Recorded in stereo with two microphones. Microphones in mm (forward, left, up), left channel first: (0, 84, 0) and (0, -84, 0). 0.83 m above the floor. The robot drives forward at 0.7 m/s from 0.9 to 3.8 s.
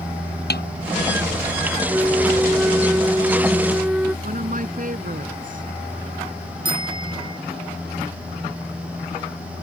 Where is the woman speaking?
55° right (ahead or behind).